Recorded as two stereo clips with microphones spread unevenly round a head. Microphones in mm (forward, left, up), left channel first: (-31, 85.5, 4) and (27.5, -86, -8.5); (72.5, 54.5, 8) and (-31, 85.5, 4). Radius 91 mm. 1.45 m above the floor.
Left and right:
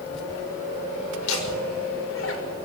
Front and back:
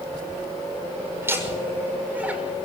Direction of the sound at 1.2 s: 95° left.